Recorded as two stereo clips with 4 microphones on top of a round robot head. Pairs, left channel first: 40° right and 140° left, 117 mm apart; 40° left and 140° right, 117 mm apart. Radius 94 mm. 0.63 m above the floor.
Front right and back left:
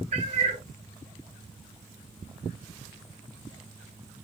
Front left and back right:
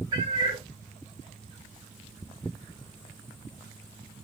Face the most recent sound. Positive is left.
turn(degrees=165)